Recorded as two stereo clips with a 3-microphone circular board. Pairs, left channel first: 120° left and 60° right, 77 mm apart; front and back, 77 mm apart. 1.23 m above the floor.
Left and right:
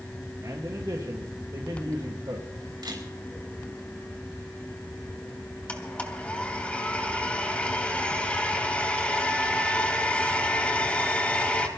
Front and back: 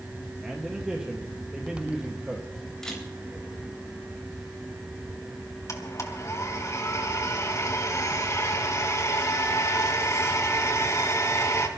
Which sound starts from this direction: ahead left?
A blender, at 5.7 s.